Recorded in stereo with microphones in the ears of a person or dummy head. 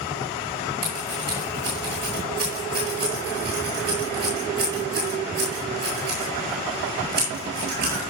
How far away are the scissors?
About 9.5 m.